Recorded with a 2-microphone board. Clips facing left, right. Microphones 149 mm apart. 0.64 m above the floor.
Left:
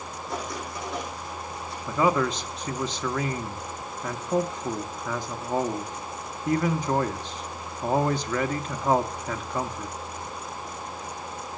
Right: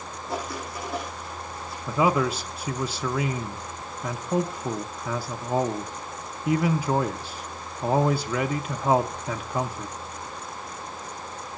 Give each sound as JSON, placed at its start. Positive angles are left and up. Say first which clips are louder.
{"t": 0.3, "sound": "writing", "louder": "right 2 dB", "side_deg": -5, "distance_m": 6.0}
{"t": 1.9, "sound": "a man speaking", "louder": "right 1 dB", "side_deg": -10, "distance_m": 0.6}